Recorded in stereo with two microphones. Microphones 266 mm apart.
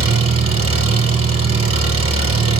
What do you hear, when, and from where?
0.0 s an engine running: 55° right (ahead or behind), 2 m